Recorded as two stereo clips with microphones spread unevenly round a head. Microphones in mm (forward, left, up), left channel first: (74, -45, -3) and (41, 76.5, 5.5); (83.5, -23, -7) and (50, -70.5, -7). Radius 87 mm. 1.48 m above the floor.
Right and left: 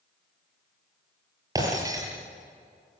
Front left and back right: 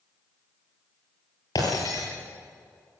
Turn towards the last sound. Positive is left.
turn(degrees=45)